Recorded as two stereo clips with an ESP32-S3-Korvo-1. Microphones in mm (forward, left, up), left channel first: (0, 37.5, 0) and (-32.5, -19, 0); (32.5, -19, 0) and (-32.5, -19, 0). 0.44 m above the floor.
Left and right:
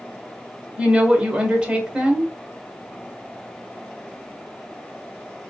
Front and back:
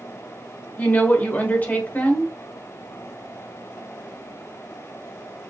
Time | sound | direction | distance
0.8 | a woman speaking | 50° right | 1.1 m